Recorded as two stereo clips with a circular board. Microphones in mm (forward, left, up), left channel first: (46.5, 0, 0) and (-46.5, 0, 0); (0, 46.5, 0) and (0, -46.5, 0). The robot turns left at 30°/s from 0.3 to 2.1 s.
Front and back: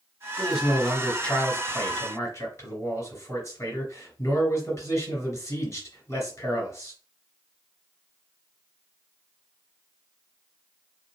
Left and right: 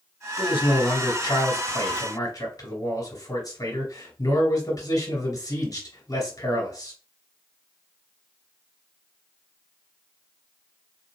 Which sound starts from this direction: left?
A man speaking, at 0.4 s.